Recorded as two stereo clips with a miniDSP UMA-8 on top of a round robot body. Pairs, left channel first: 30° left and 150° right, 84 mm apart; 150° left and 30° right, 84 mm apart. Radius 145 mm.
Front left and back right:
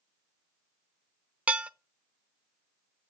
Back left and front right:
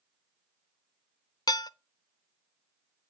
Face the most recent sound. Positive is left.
turn(degrees=140)